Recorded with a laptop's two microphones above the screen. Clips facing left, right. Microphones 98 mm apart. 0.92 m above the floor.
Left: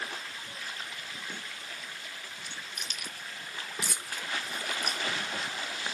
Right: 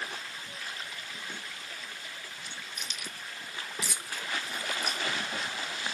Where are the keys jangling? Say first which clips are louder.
Even; 55° left (ahead or behind), 0.6 m.